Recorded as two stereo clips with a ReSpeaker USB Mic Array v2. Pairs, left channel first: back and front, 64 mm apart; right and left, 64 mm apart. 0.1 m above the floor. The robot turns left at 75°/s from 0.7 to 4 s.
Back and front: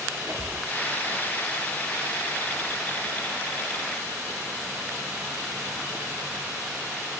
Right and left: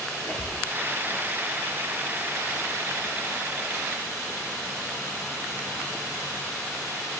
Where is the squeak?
10° right, 1.6 m.